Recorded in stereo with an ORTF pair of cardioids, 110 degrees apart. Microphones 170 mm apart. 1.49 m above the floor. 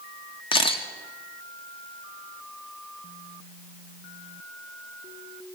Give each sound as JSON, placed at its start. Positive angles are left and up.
{"t": 0.5, "sound": "a camera shutter", "azimuth_deg": 30, "distance_m": 1.2}